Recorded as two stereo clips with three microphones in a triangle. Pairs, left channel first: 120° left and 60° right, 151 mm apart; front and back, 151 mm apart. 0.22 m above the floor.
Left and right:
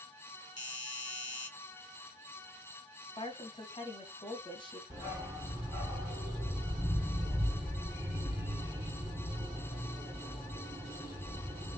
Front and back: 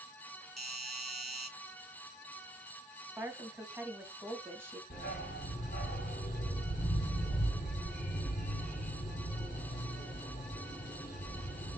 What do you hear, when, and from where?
0.6 s a doorbell: 90° left, 1.7 m
3.2 s a woman speaking: 120° left, 1.5 m
4.9 s a dog barking: 10° left, 2 m